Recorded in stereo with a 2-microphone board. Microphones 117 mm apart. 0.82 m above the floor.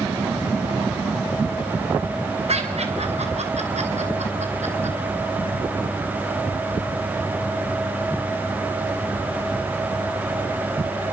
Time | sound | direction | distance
2.5 | laughter | 65° right (ahead or behind) | 4 m